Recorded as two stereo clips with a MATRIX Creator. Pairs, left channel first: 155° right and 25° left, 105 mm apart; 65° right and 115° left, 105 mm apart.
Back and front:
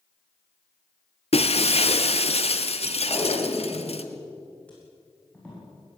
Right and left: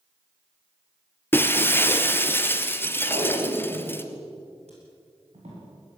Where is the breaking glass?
135° right, 1.4 m.